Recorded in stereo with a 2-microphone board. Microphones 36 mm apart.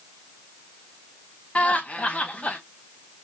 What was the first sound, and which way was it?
Laughter, 35° left (ahead or behind).